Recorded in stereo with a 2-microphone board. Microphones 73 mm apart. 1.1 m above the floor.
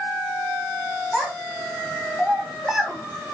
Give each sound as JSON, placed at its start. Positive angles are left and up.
{"t": 1.1, "sound": "a child speaking", "side_deg": -15, "distance_m": 1.4}